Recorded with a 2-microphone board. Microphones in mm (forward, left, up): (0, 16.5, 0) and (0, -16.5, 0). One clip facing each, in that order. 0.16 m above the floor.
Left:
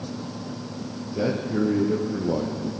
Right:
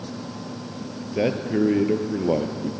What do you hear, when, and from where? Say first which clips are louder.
1.0 s a man speaking: right 2 dB; 40° right (ahead or behind), 3 m; by 2.7 s 65° right (ahead or behind), 3 m